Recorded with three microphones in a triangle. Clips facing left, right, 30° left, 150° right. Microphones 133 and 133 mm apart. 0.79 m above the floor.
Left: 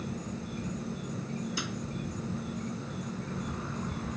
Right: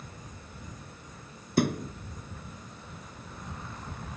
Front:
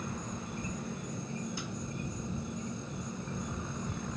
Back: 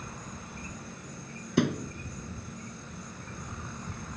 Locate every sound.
0.0 s an insect: 100° left
1.6 s a thud: 130° right